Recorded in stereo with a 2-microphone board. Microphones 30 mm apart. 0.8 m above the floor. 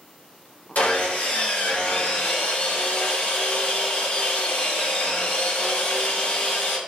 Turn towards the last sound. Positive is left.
turn(degrees=70)  # may be behind; listen again after turning